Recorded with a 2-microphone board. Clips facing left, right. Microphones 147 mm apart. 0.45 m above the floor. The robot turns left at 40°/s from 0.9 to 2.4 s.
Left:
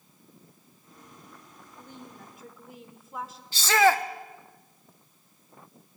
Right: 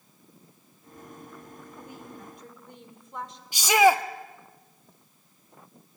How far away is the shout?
About 1.0 m.